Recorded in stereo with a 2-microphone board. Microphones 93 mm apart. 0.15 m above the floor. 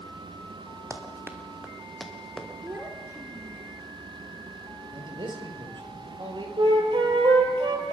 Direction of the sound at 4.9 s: 55° right (ahead or behind).